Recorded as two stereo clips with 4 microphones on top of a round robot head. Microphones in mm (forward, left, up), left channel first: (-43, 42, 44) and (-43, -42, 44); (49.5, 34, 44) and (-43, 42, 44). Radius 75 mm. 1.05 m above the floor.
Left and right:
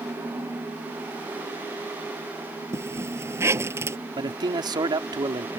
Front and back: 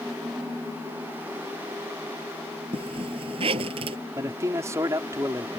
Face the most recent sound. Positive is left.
turn(degrees=-120)